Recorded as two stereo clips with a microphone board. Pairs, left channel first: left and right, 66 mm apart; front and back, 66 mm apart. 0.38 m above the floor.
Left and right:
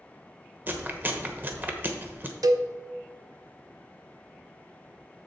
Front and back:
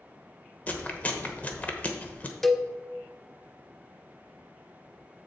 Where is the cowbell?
85° right, 0.5 m.